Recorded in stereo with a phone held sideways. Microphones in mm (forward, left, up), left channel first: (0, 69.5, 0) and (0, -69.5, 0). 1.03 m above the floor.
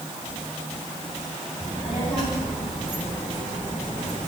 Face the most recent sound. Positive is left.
turn(degrees=70)  # may be behind; listen again after turning